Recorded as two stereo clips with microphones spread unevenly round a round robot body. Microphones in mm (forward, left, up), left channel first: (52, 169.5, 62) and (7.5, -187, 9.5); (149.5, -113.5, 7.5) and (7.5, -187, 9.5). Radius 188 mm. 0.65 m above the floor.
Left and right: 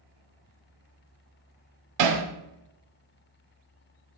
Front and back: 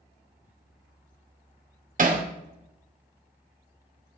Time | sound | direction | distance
2.0 | hammering | 125° right | 1.8 m